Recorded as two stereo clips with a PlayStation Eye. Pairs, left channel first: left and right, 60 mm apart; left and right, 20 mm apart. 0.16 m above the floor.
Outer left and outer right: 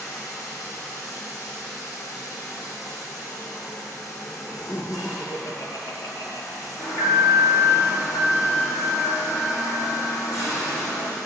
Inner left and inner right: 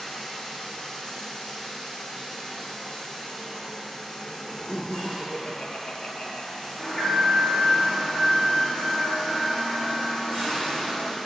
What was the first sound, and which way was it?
Running water, 55° left (ahead or behind).